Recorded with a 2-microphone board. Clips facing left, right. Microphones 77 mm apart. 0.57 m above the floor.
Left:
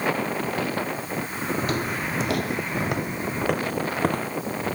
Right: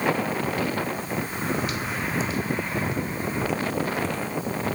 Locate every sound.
1.6 s footsteps: 40° left (ahead or behind); by 4.3 s 55° left (ahead or behind)